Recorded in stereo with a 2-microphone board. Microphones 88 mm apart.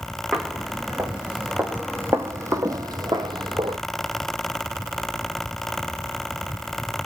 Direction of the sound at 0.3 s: 5° right (ahead or behind).